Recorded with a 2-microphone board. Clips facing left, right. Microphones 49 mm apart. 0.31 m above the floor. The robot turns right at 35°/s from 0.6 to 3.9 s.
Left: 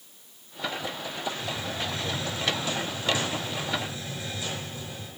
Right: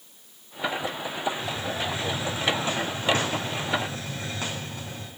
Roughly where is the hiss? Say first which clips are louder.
Right 2 dB; behind.